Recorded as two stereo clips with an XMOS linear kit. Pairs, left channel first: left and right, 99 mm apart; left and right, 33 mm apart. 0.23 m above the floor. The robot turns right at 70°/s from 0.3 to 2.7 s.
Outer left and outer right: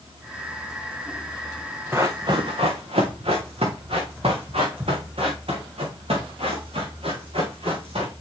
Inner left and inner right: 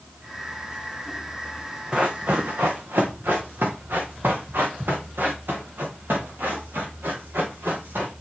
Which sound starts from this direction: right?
Running footsteps, at 1.9 s.